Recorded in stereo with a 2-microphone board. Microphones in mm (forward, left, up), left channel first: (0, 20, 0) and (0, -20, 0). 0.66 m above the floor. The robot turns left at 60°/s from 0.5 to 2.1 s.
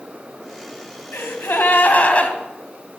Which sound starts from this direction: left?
A gasp, at 1.1 s.